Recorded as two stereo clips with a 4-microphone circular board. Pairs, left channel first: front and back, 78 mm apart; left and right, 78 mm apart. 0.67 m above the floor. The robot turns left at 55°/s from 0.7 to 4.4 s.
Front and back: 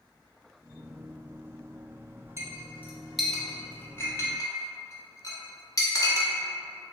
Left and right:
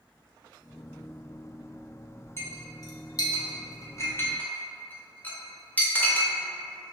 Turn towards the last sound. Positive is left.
turn(degrees=25)